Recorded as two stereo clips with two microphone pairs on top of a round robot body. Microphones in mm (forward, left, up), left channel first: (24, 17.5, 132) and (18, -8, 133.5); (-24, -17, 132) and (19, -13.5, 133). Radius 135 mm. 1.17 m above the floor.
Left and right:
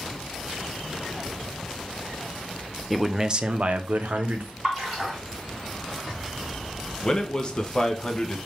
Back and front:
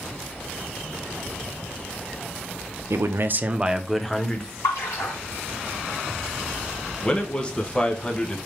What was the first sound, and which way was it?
A man speaking, 10° right.